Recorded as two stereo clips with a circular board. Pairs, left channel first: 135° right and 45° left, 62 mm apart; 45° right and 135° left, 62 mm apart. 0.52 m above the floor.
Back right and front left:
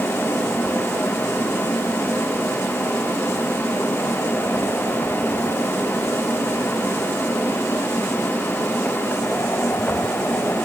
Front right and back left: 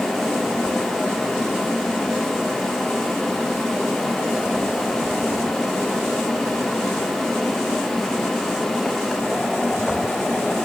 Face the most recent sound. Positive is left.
No sound to turn to.